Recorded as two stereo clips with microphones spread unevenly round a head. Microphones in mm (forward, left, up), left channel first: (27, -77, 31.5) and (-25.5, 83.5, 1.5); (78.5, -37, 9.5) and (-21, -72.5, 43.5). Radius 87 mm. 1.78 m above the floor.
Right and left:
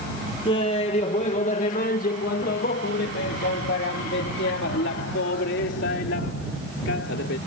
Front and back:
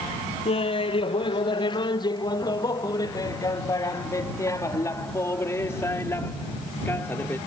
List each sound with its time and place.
0.5 s laughter: 10° right; by 7.4 s 55° right